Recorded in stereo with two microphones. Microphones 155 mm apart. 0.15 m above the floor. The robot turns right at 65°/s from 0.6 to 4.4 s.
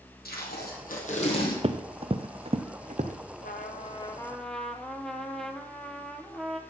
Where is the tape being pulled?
95° left, 3 m; by 1.5 s 155° left, 3 m.